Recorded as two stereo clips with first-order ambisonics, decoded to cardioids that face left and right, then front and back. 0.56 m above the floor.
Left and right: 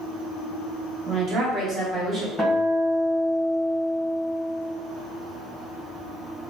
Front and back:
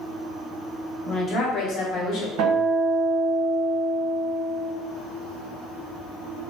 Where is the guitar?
Straight behind, 1.3 m.